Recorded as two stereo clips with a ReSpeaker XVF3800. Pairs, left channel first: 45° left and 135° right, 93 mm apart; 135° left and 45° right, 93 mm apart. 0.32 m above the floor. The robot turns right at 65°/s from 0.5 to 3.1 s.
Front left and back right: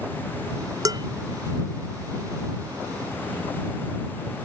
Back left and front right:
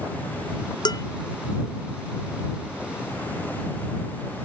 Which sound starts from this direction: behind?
Dishes clattering, at 0.8 s.